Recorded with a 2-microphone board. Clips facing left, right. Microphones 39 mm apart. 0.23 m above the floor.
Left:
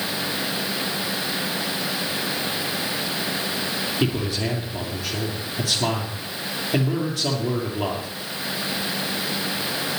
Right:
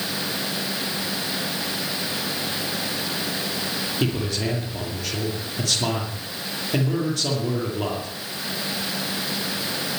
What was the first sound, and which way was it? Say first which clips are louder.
A man speaking: even; 5° left (ahead or behind).